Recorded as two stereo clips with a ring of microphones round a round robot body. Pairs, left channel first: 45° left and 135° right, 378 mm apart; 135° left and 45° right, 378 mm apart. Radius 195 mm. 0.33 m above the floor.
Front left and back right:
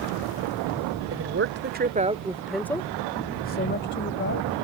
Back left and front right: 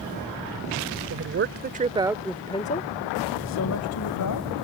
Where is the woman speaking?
90° right; by 4.6 s 100° left.